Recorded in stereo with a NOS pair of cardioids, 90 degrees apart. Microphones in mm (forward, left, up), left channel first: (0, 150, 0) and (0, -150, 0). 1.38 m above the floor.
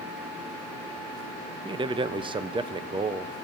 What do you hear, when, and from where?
1.6 s a man speaking: 15° right, 0.6 m